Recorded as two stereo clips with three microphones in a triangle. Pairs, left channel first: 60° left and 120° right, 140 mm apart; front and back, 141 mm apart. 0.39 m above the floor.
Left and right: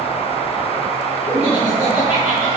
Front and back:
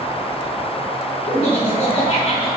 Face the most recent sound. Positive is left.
turn(degrees=35)